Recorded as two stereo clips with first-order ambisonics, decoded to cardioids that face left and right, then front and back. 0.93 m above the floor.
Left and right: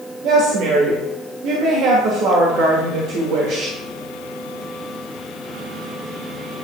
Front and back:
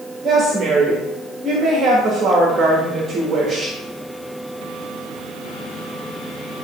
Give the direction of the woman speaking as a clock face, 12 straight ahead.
4 o'clock.